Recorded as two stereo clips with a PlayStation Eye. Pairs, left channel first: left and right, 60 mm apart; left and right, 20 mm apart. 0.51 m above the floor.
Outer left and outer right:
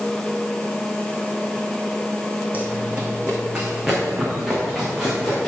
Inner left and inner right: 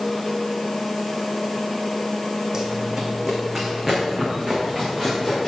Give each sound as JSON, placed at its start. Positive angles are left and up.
{"t": 2.5, "sound": "running footsteps", "side_deg": -30, "distance_m": 1.9}